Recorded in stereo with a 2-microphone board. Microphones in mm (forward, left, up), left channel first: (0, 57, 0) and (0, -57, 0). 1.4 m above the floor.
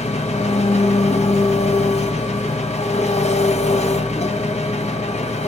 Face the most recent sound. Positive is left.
turn(degrees=75)  # may be behind; listen again after turning